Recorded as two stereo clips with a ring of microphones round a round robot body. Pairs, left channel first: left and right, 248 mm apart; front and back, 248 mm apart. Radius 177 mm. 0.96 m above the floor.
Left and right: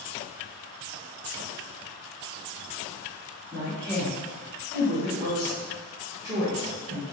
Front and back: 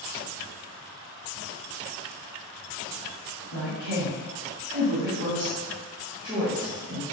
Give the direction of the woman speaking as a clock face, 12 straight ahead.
6 o'clock.